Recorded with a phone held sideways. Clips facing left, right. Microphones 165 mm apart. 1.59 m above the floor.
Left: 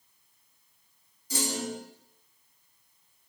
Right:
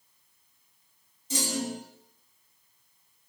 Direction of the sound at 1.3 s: 25° right (ahead or behind).